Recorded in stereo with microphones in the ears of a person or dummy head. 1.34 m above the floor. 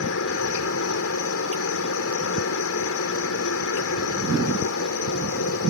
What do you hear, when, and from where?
0.0 s a helicopter: 65° left (ahead or behind)